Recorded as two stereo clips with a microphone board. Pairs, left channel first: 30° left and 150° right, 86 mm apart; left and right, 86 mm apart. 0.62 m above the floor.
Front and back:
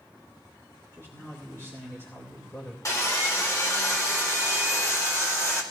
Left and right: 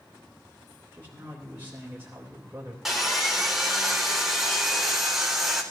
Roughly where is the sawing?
Ahead.